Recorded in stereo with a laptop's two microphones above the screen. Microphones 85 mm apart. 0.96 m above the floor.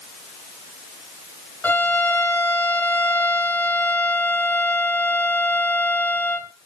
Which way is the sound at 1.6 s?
15° left (ahead or behind).